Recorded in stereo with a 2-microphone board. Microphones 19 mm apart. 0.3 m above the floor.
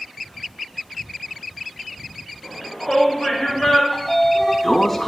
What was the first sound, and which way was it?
A shout, 25° left (ahead or behind).